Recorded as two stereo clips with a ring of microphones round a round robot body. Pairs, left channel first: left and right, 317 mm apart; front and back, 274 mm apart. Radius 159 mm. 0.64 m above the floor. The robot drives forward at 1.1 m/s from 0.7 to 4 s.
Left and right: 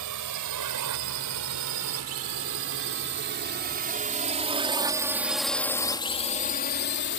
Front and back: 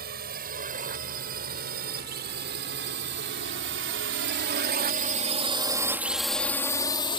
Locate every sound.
0.0 s a drone: 120° right; by 7.2 s 60° left